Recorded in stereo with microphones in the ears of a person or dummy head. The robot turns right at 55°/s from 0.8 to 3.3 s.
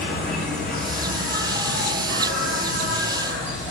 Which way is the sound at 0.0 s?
175° left.